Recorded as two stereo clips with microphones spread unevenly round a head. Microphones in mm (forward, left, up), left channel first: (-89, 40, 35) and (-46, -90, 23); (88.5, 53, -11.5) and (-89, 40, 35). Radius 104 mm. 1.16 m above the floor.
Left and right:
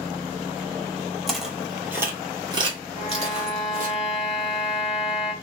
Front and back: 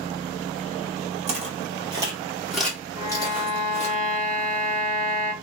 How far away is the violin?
About 0.8 m.